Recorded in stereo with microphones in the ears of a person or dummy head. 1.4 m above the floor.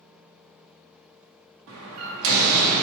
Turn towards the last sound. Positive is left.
turn(degrees=-80)